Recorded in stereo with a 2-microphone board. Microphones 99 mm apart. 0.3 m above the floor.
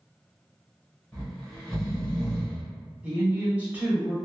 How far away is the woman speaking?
About 1.1 m.